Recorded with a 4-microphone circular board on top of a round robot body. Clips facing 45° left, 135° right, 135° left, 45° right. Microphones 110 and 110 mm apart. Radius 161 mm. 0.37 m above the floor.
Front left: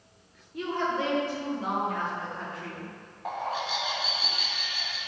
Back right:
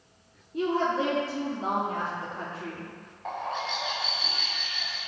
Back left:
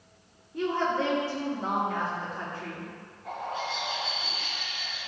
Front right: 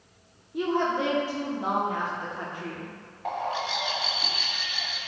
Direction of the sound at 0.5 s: 110° right.